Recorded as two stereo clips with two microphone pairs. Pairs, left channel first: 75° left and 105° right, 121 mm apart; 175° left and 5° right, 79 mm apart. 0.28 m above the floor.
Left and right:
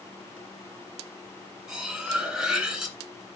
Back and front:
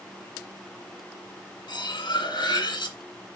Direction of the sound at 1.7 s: 170° left.